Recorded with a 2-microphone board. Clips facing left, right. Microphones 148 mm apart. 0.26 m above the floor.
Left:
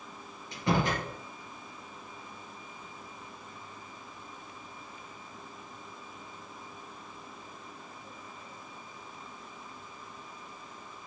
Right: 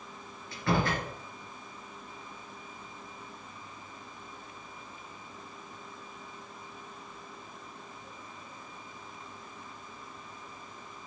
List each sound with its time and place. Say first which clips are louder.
0.5 s a door slam: even; 20° left (ahead or behind), 3.5 m